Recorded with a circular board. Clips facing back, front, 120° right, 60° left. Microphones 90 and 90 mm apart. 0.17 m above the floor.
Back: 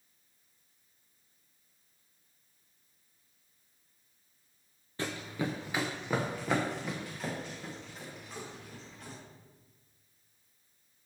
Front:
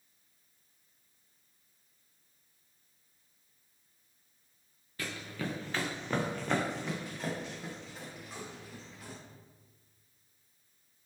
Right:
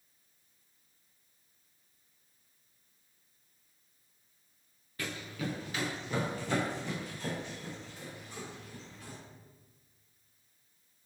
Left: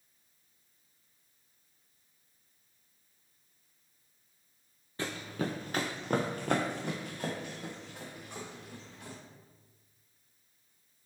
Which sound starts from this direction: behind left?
Running footsteps, at 5.0 s.